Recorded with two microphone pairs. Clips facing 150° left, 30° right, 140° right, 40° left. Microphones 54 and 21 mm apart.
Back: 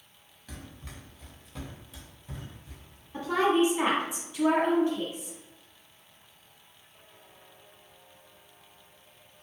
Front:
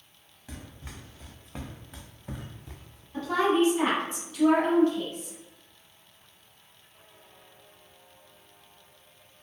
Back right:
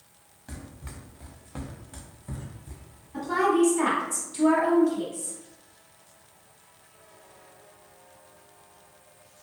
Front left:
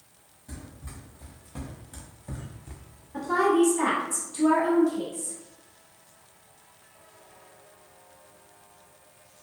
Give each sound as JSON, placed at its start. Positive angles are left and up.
{"t": 0.5, "sound": "running footsteps", "azimuth_deg": -105, "distance_m": 1.1}
{"t": 3.1, "sound": "a woman speaking", "azimuth_deg": 155, "distance_m": 1.0}